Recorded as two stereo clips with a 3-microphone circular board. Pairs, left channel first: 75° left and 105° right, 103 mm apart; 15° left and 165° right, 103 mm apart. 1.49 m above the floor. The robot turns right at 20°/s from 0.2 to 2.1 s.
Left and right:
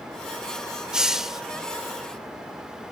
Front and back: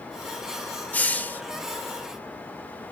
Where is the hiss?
35° right, 1.2 m; by 1.4 s 25° right, 1.2 m.